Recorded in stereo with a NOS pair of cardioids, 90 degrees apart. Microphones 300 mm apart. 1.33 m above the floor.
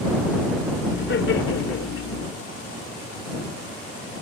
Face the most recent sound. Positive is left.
turn(degrees=55)